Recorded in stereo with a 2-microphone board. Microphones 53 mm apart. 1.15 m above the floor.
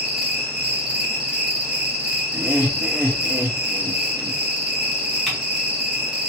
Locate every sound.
0.0 s an insect: 10° right (ahead or behind), 1.6 m
2.3 s laughter: 35° right (ahead or behind), 0.9 m
5.3 s typing on a keyboard: 5° left (ahead or behind), 2.5 m